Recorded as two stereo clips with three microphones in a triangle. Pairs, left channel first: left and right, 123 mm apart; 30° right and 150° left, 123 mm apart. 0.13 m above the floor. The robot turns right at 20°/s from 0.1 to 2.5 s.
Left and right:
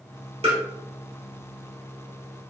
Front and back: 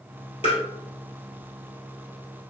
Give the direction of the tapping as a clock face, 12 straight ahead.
2 o'clock.